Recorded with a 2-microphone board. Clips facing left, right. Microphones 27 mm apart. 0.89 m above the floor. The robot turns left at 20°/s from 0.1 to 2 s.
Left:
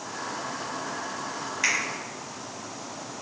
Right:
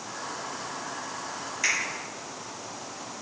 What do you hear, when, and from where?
1.6 s a finger snap: 20° left (ahead or behind), 1.1 m; by 1.8 s 25° left (ahead or behind), 1.1 m